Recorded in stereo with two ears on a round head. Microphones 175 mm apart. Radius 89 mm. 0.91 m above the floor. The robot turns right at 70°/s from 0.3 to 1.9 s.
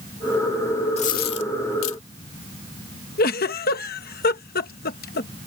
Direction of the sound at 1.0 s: 30° left (ahead or behind).